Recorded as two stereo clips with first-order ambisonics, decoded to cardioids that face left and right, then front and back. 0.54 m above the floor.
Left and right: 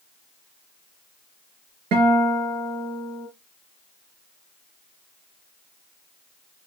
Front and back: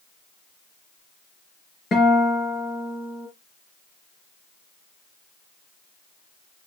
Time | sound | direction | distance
1.9 | a guitar | 65° right | 3.5 m